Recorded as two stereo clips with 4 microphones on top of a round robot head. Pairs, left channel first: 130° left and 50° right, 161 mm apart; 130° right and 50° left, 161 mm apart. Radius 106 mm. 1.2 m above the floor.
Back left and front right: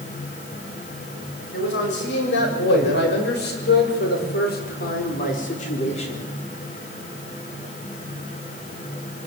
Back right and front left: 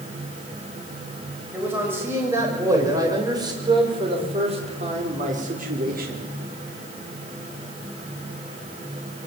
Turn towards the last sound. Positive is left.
turn(degrees=75)